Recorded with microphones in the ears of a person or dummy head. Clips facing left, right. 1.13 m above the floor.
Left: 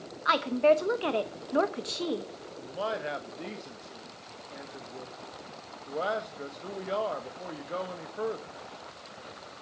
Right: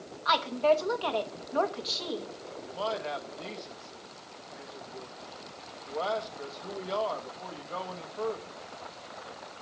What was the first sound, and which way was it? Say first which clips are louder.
A woman speaking: left 2 dB; 30° left (ahead or behind).